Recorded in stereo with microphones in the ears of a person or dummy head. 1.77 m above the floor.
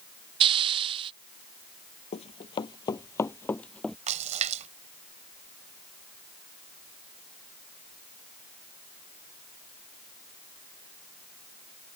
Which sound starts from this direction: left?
Running footsteps, at 2.1 s.